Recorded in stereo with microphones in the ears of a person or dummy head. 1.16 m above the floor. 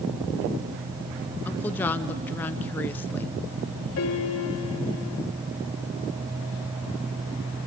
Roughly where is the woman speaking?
Centre.